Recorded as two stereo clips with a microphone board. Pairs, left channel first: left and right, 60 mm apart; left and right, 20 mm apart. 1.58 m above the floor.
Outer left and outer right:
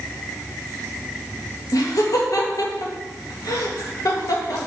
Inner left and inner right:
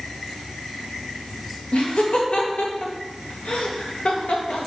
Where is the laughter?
75° left (ahead or behind), 1.8 m.